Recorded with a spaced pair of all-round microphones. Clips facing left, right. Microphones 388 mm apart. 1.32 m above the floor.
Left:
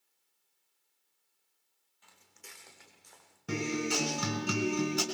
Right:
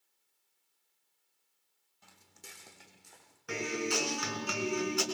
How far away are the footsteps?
About 3.5 m.